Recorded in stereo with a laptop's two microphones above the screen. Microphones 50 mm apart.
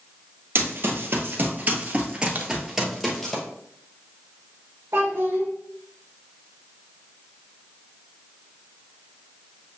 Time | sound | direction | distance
0.6 | running footsteps | 55° right (ahead or behind) | 1.4 m
2.4 | a crack | 40° right (ahead or behind) | 0.8 m
4.9 | a child speaking | 80° right | 0.9 m